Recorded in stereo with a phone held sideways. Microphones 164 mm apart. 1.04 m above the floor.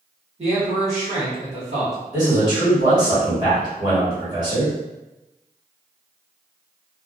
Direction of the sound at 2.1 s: 25° right (ahead or behind).